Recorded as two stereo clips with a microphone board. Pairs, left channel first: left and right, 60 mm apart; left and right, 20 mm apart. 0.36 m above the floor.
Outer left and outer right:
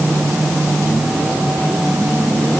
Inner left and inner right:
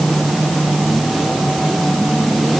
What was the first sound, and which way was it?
Only background noise.